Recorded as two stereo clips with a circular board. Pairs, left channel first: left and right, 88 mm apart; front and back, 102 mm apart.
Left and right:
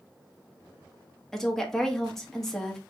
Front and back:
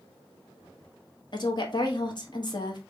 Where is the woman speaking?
5° left, 1.0 m.